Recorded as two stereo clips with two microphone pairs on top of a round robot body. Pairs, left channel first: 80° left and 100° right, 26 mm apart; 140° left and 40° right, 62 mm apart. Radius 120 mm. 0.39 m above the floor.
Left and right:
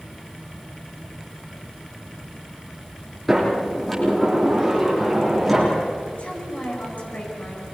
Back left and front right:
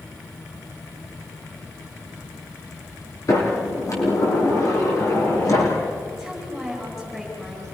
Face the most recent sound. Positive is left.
turn(degrees=60)